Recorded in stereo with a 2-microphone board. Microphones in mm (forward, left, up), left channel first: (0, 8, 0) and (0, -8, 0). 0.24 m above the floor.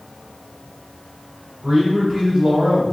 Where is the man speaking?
35° right (ahead or behind), 1.8 m.